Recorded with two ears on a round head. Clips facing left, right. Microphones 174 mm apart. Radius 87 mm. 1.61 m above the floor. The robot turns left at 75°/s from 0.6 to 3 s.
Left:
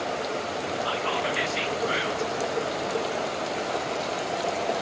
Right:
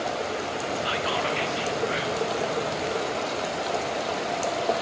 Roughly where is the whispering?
Behind right.